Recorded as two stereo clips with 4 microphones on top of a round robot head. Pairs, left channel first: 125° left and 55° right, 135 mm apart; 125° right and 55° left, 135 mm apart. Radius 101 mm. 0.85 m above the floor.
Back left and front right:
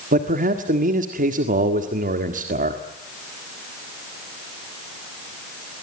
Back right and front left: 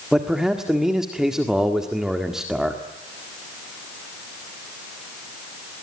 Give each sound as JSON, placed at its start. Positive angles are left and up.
{"t": 0.1, "sound": "a man speaking", "azimuth_deg": -30, "distance_m": 1.8}